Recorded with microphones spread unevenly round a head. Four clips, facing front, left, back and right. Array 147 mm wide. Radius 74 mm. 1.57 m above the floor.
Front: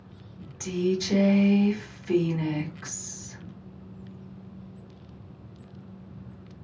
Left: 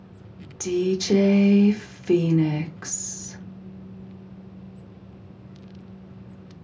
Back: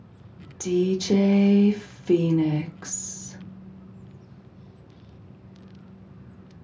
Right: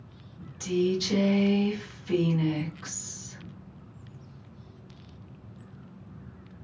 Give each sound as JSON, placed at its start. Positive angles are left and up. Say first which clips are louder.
{"t": 0.6, "sound": "a woman speaking", "louder": "left 3 dB, back 4 dB", "azimuth_deg": 140, "distance_m": 0.7}